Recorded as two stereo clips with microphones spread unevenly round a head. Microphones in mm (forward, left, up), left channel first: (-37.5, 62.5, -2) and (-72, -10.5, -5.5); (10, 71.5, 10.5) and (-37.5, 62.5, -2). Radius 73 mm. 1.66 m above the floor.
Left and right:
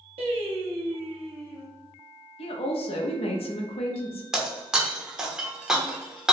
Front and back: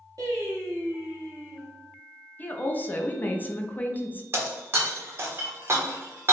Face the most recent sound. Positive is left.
turn(degrees=165)